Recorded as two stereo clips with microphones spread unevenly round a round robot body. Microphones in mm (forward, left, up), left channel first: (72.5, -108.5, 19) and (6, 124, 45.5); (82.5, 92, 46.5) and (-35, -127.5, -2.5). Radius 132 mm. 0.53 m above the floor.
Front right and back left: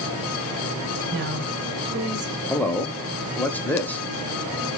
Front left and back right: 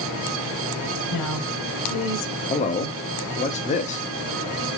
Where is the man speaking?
Straight ahead, 0.9 m.